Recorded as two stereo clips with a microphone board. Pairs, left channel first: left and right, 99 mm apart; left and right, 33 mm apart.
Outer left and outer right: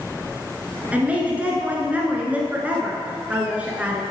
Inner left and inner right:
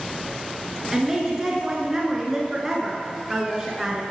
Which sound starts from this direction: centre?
A woman speaking, at 0.9 s.